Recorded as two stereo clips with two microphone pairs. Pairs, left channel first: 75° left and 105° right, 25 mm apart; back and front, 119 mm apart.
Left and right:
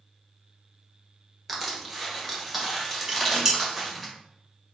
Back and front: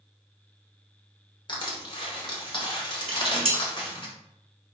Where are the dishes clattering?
30° right, 1.8 m.